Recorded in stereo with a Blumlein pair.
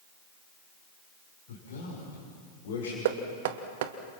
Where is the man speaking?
50° left, 7 m.